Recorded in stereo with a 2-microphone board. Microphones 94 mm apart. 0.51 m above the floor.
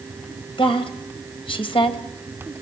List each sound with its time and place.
0.6 s a woman speaking: 65° left (ahead or behind), 2.5 m